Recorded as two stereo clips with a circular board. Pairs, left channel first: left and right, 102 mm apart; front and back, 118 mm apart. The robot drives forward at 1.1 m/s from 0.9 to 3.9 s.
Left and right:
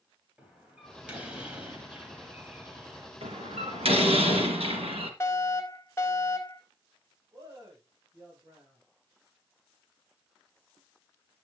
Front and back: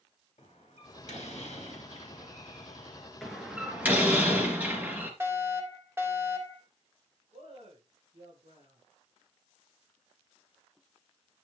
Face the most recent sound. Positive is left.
turn(degrees=-145)